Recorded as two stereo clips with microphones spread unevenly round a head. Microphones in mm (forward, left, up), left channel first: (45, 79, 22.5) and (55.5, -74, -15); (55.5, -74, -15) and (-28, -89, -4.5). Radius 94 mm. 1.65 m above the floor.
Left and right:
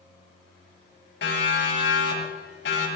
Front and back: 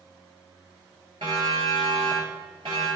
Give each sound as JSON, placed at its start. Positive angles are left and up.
{"t": 1.2, "sound": "a siren", "azimuth_deg": 125, "distance_m": 9.5}